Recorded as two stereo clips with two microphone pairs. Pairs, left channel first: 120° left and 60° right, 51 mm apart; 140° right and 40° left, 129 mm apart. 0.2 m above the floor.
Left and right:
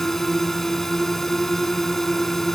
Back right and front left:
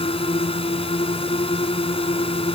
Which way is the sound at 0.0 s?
165° right.